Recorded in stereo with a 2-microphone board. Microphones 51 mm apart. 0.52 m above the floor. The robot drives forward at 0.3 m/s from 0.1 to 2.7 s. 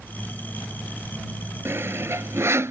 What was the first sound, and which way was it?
Sawing, 55° right (ahead or behind).